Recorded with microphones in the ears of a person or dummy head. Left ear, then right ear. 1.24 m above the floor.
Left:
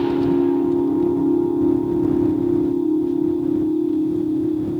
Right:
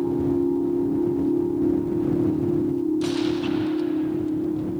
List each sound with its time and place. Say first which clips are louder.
0.0 s a machine running: left 5 dB; 75° left (ahead or behind)